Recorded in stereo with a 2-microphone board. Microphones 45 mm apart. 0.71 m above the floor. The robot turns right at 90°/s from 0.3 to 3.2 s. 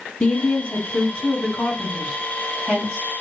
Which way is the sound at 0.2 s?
15° left.